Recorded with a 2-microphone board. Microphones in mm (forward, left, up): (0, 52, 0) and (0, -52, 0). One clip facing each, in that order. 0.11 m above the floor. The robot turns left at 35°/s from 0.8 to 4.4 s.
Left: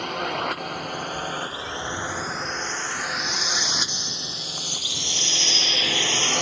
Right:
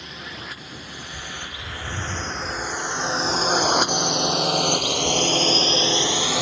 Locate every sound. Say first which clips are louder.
0.0 s a drone: left 11 dB; 65° left (ahead or behind); by 6.4 s 5° right (ahead or behind)
1.0 s a bird: left 7 dB; 10° right (ahead or behind); by 6.4 s 50° right (ahead or behind)